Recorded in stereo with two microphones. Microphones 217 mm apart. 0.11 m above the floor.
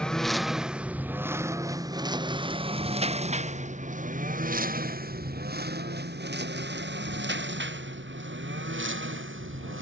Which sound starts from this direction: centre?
A lawn mower, at 0.0 s.